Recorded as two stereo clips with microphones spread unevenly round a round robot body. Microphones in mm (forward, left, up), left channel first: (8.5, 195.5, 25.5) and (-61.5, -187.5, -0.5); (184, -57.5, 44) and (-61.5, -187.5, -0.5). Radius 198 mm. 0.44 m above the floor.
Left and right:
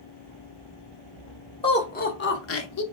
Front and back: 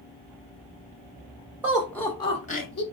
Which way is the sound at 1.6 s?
150° left.